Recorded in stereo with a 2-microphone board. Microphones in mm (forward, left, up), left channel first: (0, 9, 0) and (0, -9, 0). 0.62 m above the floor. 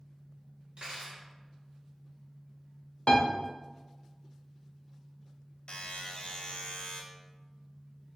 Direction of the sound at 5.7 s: 55° left (ahead or behind).